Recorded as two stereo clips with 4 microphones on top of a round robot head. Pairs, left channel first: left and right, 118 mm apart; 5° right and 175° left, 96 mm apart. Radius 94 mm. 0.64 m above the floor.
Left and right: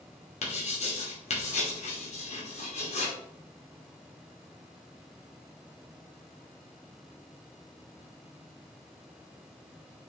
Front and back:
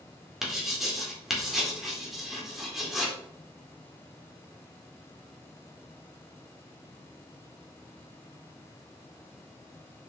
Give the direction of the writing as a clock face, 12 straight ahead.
9 o'clock.